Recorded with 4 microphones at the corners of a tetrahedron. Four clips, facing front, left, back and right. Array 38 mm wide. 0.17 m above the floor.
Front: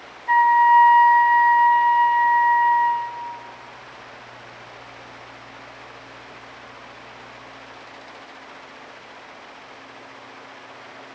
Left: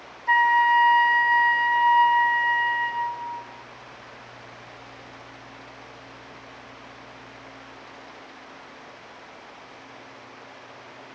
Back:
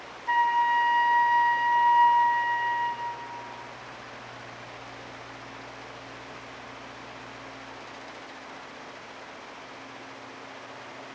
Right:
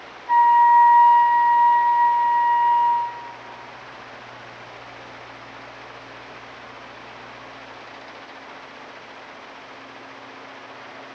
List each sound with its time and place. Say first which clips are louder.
0.3 s a flute: right 4 dB, front 9 dB; 85° left, 1.8 m